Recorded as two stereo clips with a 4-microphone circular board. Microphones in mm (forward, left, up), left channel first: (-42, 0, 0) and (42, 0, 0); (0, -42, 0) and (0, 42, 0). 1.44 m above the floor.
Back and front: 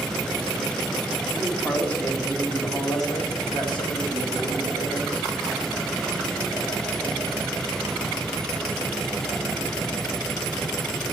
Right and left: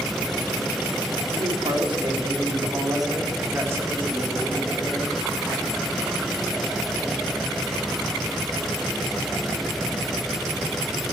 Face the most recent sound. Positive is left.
turn(degrees=175)